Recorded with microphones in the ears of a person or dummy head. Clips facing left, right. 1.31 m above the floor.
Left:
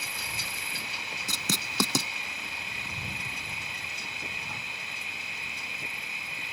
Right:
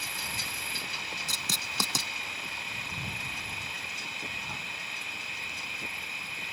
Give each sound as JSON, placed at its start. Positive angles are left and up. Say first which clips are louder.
{"t": 0.0, "sound": "an insect", "louder": "even", "side_deg": 0}
{"t": 1.3, "sound": "writing", "louder": "left 6 dB", "side_deg": 65}